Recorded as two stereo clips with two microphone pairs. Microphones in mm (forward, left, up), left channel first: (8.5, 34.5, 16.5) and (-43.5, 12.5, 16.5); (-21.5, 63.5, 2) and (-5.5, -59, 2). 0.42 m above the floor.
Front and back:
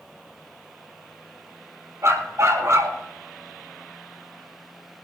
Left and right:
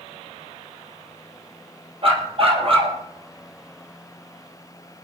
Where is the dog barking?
125° right, 2.5 m.